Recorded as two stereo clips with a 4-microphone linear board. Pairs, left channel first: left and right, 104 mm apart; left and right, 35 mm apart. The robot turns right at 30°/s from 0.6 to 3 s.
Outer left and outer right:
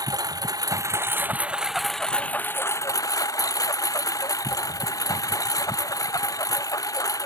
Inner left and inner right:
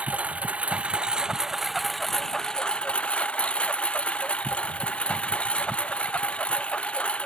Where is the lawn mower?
40° right; by 7.3 s 35° left.